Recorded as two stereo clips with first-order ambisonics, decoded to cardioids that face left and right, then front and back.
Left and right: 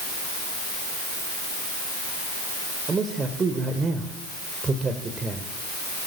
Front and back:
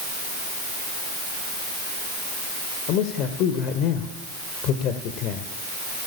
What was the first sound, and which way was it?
A man speaking, 20° right.